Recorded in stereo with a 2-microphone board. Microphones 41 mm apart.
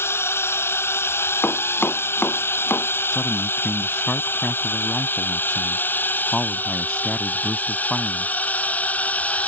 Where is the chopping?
60° left (ahead or behind).